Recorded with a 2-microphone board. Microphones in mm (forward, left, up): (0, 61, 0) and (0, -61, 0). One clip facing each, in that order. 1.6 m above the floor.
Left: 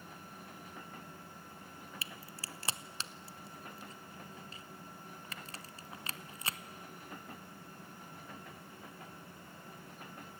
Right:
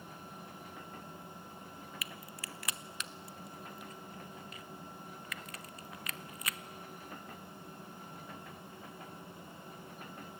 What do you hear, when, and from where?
2.0 s a crack: 30° left (ahead or behind), 0.8 m